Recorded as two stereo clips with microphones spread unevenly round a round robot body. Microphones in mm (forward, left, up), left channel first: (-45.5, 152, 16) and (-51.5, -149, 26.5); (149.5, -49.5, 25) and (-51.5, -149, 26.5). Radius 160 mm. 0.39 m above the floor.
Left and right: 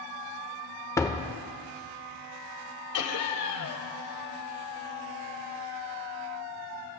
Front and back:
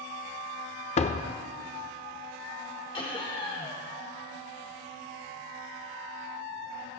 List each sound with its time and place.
1.0 s a door slam: 25° left, 0.6 m
2.9 s laughter: 95° left, 1.7 m